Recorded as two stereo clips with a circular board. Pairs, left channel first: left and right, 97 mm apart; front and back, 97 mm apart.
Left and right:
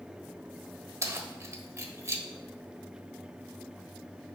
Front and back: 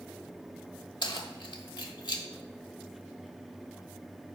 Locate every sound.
1.0 s keys jangling: 35° right, 1.1 m